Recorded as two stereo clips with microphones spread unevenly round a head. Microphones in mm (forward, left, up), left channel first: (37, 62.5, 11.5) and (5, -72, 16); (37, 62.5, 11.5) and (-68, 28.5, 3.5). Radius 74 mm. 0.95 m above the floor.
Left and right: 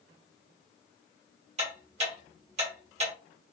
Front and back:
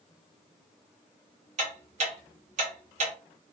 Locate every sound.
1.6 s ticking: 145° right, 1.0 m